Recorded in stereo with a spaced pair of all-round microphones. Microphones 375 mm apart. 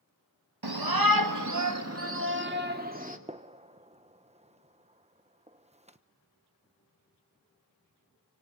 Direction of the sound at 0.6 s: 80° right.